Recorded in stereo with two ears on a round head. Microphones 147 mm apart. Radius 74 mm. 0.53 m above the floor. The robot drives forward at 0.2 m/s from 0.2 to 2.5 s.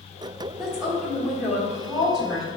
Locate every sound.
0.6 s a woman speaking: 5° right (ahead or behind), 1.2 m